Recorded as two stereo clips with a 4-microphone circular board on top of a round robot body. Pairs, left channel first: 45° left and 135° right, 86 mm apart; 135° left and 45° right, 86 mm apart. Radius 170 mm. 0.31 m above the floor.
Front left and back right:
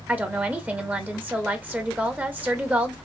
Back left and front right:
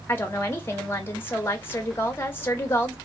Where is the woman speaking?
170° left, 1.1 m.